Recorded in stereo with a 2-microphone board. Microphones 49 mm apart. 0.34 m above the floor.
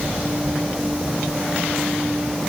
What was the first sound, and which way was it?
Only background noise.